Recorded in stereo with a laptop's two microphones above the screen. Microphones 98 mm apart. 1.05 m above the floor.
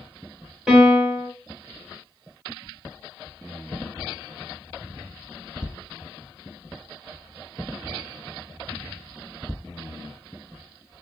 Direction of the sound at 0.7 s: 10° right (ahead or behind).